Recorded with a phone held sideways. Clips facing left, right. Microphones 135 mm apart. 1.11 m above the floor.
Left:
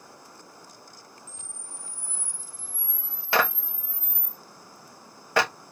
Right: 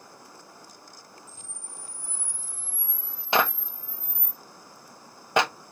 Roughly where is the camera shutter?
Left.